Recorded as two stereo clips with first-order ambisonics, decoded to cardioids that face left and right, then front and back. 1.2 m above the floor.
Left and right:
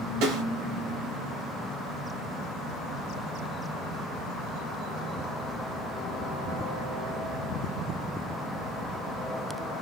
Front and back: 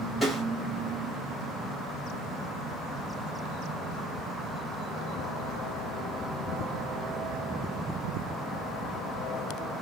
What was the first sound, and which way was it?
A snare drum, 90° right.